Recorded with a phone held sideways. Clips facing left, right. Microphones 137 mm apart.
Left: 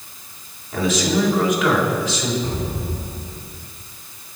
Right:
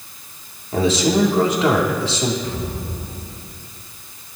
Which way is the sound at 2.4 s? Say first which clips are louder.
Left 1 dB; 35° left (ahead or behind).